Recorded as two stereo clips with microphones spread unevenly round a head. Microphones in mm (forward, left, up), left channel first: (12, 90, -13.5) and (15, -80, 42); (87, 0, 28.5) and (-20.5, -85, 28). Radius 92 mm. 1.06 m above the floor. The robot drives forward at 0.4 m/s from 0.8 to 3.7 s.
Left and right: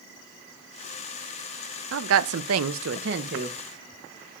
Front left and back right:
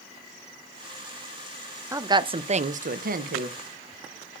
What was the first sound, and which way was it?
A woman speaking, 70° right.